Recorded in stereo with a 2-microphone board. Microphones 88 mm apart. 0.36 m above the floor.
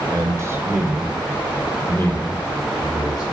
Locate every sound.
0.1 s a man speaking: 40° right (ahead or behind), 1.3 m; by 3.2 s 50° left (ahead or behind), 1.7 m